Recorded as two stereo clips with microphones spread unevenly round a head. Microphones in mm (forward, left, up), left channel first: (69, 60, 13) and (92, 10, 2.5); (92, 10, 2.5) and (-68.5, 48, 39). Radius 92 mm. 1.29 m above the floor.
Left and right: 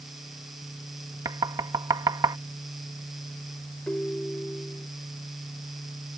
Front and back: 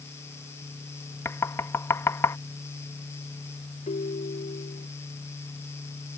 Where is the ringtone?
40° left.